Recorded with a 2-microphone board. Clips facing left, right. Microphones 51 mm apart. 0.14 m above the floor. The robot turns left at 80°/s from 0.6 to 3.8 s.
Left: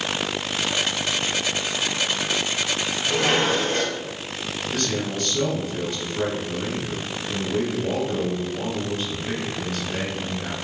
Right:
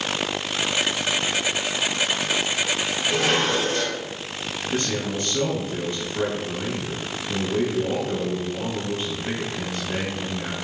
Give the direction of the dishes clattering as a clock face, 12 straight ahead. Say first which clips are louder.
Left 1 dB; 6 o'clock.